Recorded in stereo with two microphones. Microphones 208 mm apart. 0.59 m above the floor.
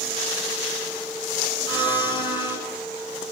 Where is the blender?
20° left (ahead or behind), 6 m.